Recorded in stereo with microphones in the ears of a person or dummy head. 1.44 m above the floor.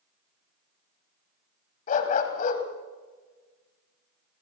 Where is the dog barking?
50° left (ahead or behind), 1.8 m.